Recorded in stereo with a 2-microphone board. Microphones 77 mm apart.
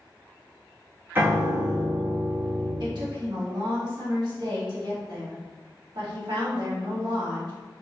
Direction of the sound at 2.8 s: 70° right (ahead or behind).